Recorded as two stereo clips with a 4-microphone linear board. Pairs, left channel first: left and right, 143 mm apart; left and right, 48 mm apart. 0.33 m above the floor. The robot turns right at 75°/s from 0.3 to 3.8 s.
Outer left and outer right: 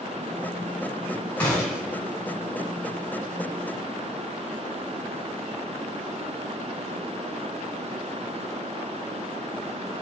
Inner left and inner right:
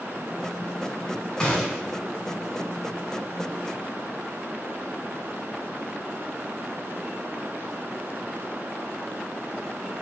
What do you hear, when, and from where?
1.4 s a gunshot: 165° left, 1.6 m; by 2.0 s 155° right, 1.6 m